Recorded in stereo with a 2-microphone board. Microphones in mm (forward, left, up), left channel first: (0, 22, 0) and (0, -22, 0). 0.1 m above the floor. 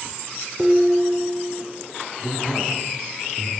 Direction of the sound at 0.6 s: 20° right (ahead or behind).